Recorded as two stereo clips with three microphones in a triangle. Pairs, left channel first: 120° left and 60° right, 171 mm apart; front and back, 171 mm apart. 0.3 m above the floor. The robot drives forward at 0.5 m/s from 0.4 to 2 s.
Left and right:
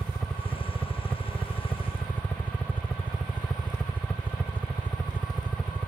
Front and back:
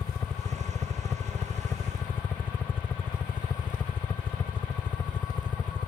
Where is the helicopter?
50° left; by 5.9 s 55° left.